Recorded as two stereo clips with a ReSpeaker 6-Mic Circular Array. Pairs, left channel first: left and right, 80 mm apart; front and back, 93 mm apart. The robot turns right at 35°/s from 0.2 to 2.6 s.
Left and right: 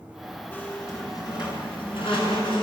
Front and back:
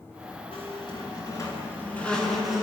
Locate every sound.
0.5 s a squeak: 25° left, 8 m; by 2.6 s 95° left, 8 m